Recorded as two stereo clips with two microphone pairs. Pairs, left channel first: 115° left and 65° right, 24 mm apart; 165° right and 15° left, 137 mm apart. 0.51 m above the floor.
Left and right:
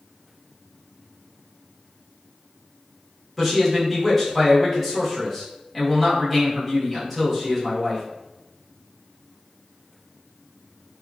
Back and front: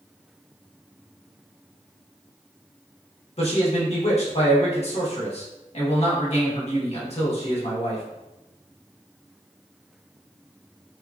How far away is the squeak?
No squeak in this recording.